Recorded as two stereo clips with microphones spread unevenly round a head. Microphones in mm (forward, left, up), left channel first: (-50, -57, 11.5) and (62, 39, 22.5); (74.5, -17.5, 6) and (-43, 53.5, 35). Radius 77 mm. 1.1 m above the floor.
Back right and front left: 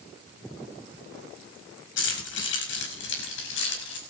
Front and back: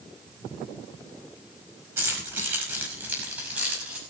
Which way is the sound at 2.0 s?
135° right.